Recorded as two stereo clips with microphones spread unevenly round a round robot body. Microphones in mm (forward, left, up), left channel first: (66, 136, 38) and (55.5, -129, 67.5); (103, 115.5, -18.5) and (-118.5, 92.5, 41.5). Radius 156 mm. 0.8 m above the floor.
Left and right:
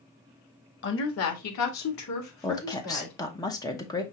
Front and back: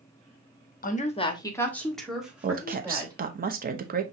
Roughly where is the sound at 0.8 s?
Ahead left.